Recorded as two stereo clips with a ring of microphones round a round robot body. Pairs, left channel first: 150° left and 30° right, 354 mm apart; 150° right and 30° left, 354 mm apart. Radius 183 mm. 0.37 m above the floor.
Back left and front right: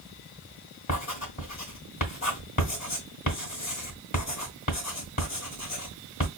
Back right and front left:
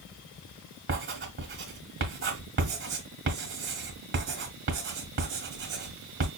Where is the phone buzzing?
I don't hear a phone buzzing.